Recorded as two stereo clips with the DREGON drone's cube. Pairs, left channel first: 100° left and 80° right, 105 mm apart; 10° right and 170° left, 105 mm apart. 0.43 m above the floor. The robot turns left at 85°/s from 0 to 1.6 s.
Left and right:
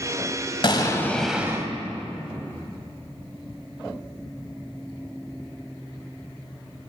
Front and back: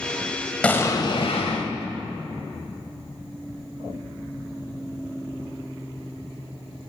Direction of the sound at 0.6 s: 65° left.